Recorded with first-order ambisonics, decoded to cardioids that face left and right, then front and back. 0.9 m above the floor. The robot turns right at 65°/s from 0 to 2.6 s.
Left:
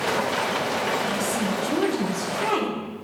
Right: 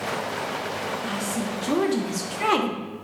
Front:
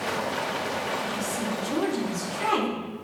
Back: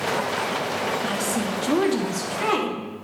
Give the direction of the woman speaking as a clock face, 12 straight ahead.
7 o'clock.